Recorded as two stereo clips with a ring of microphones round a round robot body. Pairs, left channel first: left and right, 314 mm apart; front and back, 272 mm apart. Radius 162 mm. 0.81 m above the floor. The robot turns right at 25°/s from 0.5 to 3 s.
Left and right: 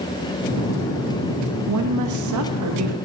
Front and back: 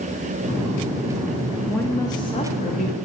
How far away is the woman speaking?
About 1.3 m.